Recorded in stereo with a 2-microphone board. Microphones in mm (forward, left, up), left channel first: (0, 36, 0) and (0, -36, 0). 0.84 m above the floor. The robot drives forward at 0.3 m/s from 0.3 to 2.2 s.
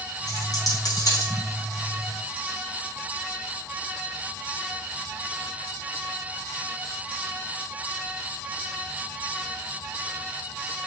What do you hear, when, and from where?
0.3 s a dropped coin: 60° left (ahead or behind), 4 m; by 1.3 s 55° left (ahead or behind), 4 m